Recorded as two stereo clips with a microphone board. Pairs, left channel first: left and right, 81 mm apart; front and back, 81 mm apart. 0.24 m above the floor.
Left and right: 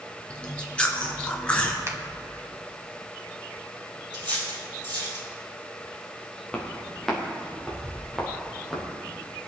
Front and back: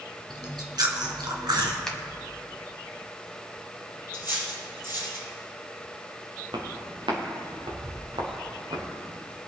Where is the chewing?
165° left, 1.8 m.